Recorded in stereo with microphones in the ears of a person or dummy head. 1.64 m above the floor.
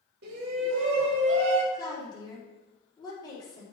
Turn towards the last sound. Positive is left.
turn(degrees=25)  # may be behind; listen again after turning